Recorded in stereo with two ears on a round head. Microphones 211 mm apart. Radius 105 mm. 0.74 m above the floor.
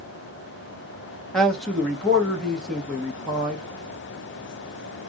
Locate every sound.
1.3 s a man speaking: centre (ahead or behind), 1.1 m